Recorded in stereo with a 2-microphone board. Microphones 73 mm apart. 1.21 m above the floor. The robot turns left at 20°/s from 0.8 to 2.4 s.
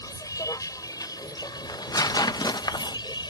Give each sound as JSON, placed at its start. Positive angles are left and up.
{"t": 0.0, "sound": "a vehicle", "azimuth_deg": 120}
{"t": 1.7, "sound": "tearing paper", "side_deg": 55}